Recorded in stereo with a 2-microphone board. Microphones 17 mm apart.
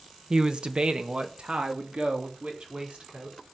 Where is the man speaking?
40° right (ahead or behind), 1.1 m; by 3.4 s 65° right (ahead or behind), 5 m.